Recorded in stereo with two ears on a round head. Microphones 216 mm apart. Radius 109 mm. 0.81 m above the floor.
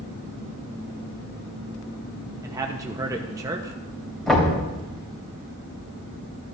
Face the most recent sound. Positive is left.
turn(degrees=0)  # may be behind; listen again after turning